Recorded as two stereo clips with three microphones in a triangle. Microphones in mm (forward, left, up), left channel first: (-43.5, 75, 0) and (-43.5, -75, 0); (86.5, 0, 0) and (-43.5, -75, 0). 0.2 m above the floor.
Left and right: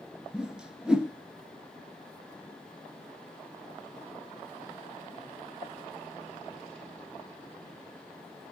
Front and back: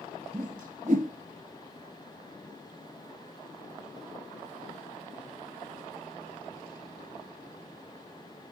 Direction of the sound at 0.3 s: 175° right.